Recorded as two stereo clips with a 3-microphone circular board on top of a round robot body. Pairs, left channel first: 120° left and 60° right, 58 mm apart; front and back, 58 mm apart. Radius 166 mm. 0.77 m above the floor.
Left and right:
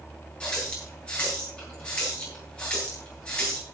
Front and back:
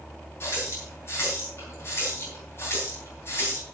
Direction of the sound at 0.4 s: 50° left.